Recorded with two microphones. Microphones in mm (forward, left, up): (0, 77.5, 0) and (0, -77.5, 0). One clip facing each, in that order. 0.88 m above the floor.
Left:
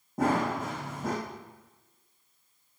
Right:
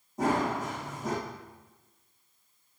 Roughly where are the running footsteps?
Left.